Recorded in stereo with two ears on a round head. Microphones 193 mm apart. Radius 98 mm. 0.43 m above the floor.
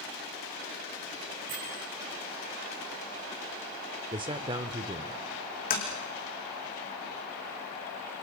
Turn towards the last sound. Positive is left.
turn(degrees=40)  # may be behind; listen again after turning